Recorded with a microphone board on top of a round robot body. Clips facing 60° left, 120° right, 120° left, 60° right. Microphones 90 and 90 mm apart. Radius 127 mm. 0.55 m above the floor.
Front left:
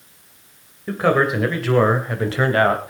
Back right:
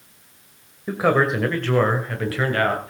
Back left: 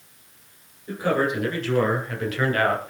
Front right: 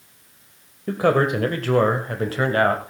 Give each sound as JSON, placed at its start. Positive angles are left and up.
{"t": 0.9, "sound": "a man speaking", "azimuth_deg": -40, "distance_m": 2.5}